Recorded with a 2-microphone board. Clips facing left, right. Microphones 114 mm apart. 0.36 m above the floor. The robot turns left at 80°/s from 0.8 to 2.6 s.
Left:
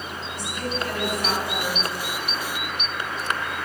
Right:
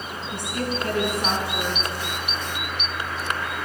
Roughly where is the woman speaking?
Behind right.